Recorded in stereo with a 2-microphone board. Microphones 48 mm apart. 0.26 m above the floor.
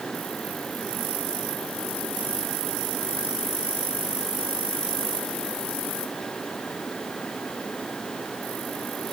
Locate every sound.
Only background noise.